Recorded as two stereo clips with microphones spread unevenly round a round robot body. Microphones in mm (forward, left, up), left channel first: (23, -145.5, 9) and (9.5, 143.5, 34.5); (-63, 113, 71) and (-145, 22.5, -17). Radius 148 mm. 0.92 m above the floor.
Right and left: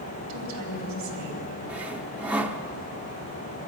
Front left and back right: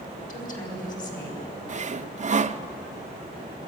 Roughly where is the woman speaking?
Ahead left.